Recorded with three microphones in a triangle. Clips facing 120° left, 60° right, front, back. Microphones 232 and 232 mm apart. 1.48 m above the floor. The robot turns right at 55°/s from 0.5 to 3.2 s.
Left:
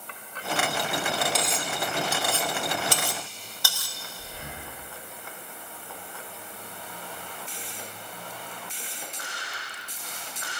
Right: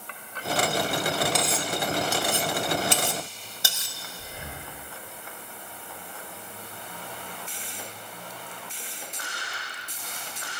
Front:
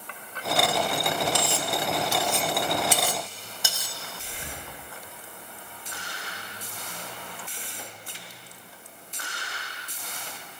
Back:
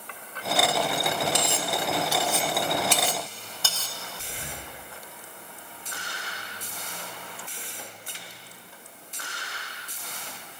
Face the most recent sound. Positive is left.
turn(degrees=-130)